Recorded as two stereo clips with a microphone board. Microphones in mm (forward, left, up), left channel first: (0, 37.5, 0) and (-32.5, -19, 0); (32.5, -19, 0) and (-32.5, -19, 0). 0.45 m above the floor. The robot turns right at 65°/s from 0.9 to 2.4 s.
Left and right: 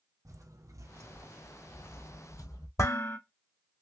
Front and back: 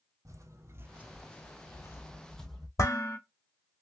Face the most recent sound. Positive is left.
turn(degrees=30)